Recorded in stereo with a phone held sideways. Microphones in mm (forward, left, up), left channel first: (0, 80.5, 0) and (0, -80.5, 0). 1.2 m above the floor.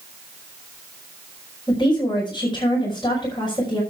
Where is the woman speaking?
30° left (ahead or behind), 5.5 m.